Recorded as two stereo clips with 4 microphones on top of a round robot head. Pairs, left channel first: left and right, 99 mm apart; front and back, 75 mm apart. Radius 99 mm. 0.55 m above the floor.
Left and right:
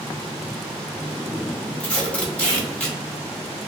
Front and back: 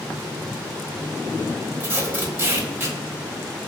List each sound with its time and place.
1.8 s tape being pulled: 155° left, 1.2 m